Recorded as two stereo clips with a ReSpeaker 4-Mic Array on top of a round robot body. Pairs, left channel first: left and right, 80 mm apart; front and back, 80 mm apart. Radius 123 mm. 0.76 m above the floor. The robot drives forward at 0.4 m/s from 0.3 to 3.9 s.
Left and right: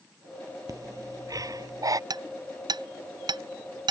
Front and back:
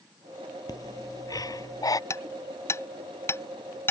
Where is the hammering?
55° right; by 3.9 s 60° right.